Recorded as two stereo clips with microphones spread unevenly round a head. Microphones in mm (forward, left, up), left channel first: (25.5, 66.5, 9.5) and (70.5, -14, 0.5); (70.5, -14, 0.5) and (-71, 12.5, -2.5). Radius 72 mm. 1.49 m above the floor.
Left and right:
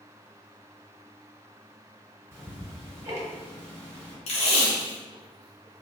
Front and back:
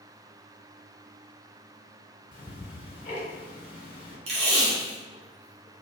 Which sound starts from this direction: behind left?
Tape being pulled, at 4.3 s.